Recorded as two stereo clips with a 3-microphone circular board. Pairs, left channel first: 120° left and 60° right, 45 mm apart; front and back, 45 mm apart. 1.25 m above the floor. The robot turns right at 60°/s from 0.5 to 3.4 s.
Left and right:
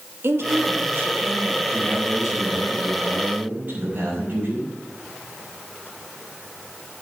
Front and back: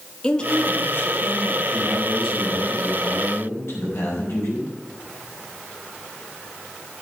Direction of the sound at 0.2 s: 70° right.